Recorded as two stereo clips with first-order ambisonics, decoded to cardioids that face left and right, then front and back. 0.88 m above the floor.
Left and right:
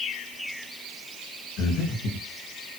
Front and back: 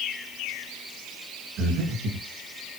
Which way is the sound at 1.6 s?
135° left.